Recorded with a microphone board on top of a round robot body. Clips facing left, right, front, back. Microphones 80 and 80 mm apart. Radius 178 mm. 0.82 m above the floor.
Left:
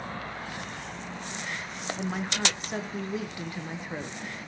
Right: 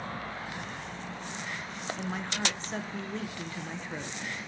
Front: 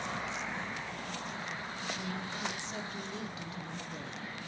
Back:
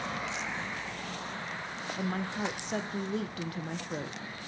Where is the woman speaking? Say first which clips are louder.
Left 4 dB, back 9 dB; 170° left, 1.0 m.